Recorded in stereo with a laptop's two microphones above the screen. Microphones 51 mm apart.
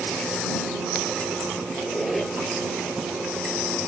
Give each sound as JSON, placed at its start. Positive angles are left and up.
{"t": 1.7, "sound": "a squeak", "side_deg": 0}